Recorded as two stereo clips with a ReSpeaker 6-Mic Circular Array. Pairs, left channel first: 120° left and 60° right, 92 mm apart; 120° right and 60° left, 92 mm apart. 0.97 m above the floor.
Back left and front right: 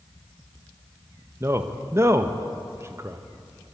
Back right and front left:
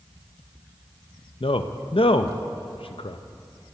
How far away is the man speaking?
About 0.5 m.